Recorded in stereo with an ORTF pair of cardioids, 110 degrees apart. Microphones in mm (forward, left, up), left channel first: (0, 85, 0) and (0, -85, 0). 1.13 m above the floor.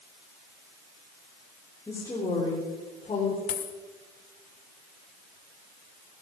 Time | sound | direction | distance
1.9 | a woman speaking | 15° left | 3 m
3.5 | a dropped coin | 60° left | 1.6 m